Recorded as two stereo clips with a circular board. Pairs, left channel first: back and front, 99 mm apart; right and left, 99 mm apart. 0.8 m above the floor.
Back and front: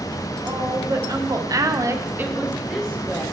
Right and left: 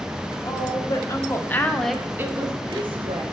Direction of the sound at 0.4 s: 50° right.